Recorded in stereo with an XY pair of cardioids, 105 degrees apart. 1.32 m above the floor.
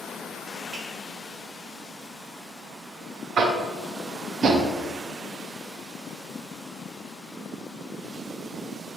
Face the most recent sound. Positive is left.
turn(degrees=-55)